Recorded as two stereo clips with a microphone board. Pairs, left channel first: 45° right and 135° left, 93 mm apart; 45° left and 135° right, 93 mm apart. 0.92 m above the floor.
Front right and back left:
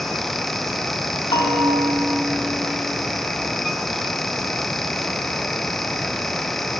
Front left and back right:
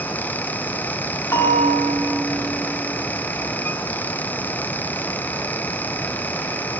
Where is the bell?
15° right, 1.6 m.